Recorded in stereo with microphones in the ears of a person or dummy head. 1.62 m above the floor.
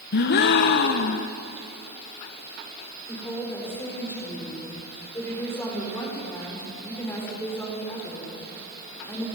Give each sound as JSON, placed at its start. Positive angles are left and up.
{"t": 0.1, "sound": "a gasp", "side_deg": 60, "distance_m": 1.0}
{"t": 3.1, "sound": "a woman speaking", "side_deg": 15, "distance_m": 6.5}